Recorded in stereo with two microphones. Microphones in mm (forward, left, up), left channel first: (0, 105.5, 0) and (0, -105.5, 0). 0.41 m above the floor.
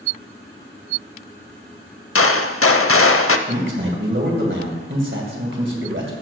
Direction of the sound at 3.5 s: 60° right (ahead or behind).